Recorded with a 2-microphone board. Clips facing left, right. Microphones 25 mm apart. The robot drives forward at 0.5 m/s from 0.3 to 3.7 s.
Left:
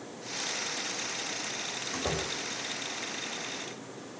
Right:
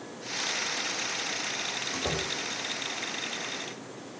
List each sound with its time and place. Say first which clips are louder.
1.9 s a door slam: left 1 dB; centre (ahead or behind), 5 m